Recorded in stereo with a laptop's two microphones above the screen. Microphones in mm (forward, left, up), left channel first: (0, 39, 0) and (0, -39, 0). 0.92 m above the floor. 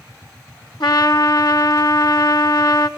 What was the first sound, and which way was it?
A trumpet, 75° left (ahead or behind).